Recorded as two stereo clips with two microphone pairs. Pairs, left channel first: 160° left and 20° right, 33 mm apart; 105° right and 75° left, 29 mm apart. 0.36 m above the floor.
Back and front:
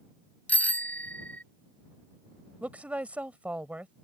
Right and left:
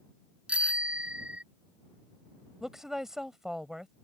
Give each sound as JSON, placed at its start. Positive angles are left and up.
{"t": 0.5, "sound": "a bicycle bell", "azimuth_deg": 115}
{"t": 2.6, "sound": "a woman speaking", "azimuth_deg": 5}